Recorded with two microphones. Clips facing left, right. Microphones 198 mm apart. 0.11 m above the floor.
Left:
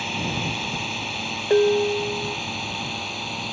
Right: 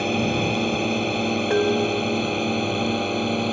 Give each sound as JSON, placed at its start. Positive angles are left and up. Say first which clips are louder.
{"t": 0.0, "sound": "a drone", "louder": "right 8 dB", "side_deg": -55}
{"t": 1.5, "sound": "dishes clattering", "louder": "left 5 dB", "side_deg": 20}